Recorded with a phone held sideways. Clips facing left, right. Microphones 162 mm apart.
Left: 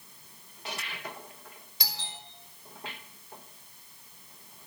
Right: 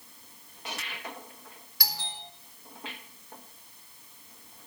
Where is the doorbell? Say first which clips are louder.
Right 3 dB; 20° left (ahead or behind), 5.5 m.